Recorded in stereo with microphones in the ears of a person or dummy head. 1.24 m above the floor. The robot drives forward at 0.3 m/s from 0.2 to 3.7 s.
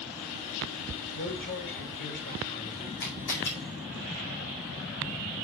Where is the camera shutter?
55° left (ahead or behind), 2 m; by 3.5 s 50° left (ahead or behind), 2 m.